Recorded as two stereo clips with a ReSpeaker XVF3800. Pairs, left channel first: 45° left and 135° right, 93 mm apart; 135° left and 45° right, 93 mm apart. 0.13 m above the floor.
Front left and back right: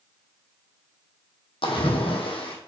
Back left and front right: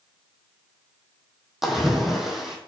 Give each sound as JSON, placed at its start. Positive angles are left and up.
{"t": 1.6, "sound": "a splash", "azimuth_deg": 40, "distance_m": 1.6}